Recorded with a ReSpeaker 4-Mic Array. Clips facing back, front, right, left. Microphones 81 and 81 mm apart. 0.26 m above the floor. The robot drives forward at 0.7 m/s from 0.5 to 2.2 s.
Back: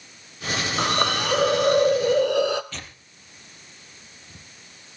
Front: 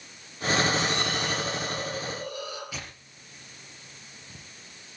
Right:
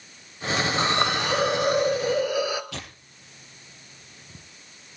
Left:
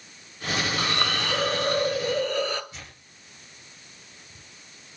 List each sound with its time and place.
0.8 s a hiss: 150° right, 0.6 m; by 2.6 s 170° right, 1.5 m
2.7 s tearing paper: 80° right, 4 m